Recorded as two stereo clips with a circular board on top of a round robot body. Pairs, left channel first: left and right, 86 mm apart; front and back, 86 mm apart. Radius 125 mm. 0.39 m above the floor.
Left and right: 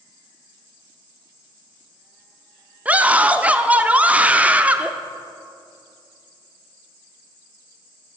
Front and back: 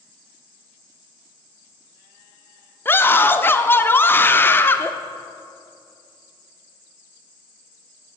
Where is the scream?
30° right, 1.1 m.